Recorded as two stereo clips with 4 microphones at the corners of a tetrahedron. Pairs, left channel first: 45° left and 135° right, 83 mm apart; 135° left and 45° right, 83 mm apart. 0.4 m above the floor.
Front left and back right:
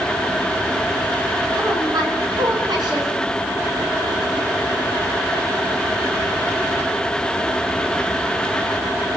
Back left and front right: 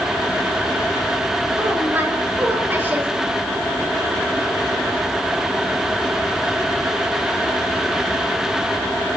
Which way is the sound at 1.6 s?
110° right.